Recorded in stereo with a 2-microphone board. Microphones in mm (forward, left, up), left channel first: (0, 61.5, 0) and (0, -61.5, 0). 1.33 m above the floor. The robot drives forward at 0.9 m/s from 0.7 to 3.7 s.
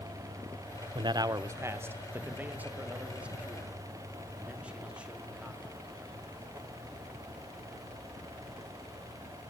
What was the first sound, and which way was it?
A man speaking, 40° right (ahead or behind).